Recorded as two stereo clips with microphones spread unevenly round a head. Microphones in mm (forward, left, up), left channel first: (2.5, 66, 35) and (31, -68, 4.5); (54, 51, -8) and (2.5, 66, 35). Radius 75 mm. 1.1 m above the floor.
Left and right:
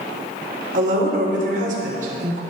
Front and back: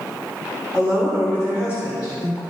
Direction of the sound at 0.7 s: 110° right.